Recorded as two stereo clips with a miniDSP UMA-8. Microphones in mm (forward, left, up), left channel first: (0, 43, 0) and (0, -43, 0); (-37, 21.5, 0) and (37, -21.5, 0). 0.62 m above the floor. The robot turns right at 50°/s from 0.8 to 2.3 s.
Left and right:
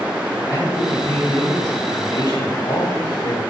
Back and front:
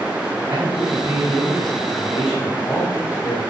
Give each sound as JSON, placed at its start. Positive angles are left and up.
{"t": 0.5, "sound": "a man speaking", "azimuth_deg": 30, "distance_m": 4.5}